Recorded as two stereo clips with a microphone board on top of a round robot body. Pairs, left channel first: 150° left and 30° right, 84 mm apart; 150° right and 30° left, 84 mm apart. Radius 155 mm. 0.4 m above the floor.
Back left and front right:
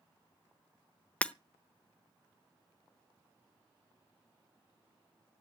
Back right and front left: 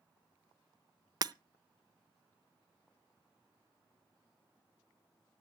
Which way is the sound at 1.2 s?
75° left.